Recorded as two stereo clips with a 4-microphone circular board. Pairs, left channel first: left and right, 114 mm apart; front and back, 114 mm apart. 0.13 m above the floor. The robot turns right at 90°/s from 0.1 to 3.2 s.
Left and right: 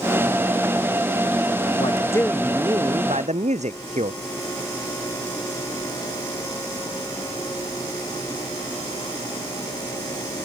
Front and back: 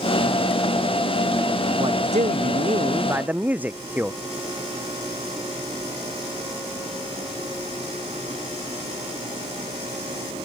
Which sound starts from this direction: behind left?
A man speaking, at 1.8 s.